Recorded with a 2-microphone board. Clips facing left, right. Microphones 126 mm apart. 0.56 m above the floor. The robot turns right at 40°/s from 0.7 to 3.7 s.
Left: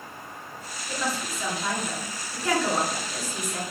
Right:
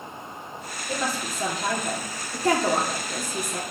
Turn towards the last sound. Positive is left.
turn(degrees=-30)